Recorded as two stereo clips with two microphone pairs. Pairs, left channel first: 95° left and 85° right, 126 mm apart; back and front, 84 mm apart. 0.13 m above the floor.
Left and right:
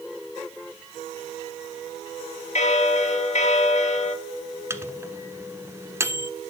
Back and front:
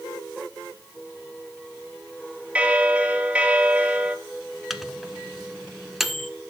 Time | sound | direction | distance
2.5 | a bell | 75° left | 1.2 m
4.7 | a microwave | 85° right | 1.0 m